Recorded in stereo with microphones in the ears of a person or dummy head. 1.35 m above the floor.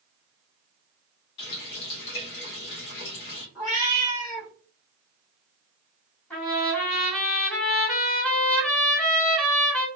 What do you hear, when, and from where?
1.4 s a running tap: 60° left (ahead or behind), 1.3 m
3.5 s a cat meowing: centre (ahead or behind), 0.8 m
6.3 s a trumpet: 10° left (ahead or behind), 1.6 m